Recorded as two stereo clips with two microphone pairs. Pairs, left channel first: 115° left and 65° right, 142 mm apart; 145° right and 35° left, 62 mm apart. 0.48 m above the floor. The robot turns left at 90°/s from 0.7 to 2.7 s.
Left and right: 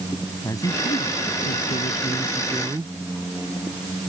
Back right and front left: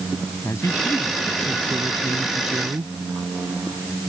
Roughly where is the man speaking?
Behind.